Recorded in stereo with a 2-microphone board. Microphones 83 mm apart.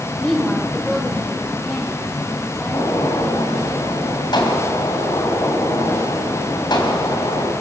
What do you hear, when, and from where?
0.2 s a woman speaking: 5° left (ahead or behind), 2.0 m; by 3.7 s 15° left (ahead or behind), 6 m
2.7 s a gunshot: 65° left (ahead or behind), 4 m